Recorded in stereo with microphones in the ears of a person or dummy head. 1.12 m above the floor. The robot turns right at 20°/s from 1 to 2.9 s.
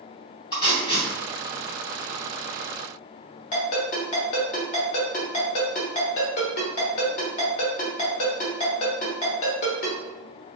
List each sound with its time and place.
0.5 s tape being pulled: 25° left (ahead or behind), 0.9 m
3.5 s a ringtone: 45° left (ahead or behind), 1.0 m